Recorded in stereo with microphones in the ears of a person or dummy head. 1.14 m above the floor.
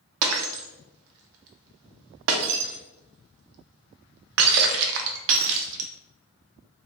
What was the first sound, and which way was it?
Breaking glass, 70° right (ahead or behind).